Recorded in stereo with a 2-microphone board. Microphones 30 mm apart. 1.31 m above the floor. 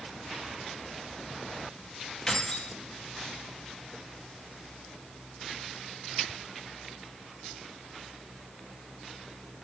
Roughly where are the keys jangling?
Left.